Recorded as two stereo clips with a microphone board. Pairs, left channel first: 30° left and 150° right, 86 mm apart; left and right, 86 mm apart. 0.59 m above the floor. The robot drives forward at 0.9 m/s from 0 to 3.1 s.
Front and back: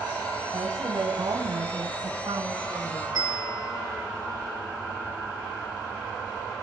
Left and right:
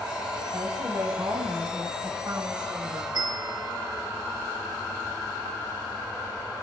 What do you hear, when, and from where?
0.5 s a woman speaking: 120° right, 3.5 m; by 3.0 s 140° right, 5 m
3.1 s a bell: 115° right, 6.5 m